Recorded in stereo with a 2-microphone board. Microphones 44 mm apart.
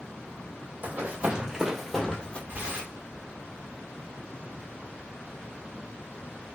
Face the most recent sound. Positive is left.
turn(degrees=-45)  # may be behind; listen again after turning